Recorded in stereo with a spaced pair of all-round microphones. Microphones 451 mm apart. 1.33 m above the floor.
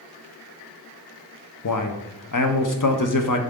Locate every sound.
1.6 s a man speaking: 45° left (ahead or behind), 0.6 m